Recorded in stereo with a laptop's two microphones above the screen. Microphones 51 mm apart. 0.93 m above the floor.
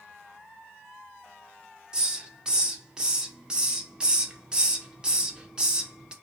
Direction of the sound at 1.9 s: 15° right (ahead or behind).